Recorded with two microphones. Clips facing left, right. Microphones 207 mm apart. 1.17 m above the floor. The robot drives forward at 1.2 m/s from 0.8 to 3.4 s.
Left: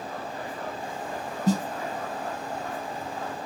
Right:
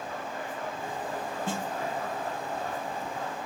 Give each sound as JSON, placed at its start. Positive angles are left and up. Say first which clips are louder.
{"t": 1.5, "sound": "a snare drum", "louder": "left 12 dB", "side_deg": 40, "distance_m": 0.7}